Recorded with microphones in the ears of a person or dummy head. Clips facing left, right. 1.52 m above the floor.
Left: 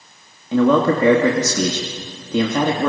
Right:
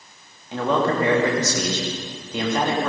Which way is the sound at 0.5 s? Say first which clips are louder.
Left 7 dB; 80° left.